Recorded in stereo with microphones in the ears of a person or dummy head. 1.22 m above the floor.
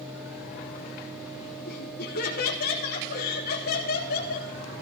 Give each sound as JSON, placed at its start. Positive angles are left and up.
{"t": 1.7, "sound": "laughter", "side_deg": 50, "distance_m": 1.1}